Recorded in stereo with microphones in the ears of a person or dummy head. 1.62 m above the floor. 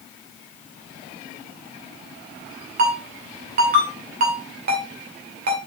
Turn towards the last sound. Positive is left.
turn(degrees=-50)  # may be behind; listen again after turning